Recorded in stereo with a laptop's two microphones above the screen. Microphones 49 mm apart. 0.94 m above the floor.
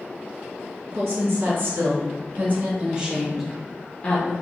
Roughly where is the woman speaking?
Right.